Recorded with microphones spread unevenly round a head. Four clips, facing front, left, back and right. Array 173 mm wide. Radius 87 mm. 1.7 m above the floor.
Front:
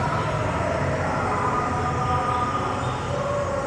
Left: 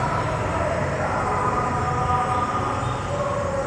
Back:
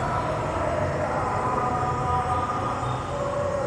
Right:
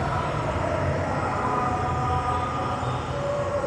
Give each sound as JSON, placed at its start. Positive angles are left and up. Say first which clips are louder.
{"t": 0.0, "sound": "an insect", "louder": "left 2 dB, front 1 dB", "azimuth_deg": 55, "distance_m": 0.8}